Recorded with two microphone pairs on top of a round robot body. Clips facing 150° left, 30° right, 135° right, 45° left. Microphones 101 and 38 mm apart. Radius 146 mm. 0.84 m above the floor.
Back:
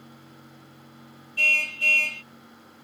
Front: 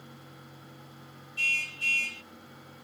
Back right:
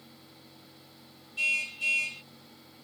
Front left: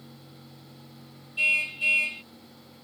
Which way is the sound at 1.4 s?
110° left.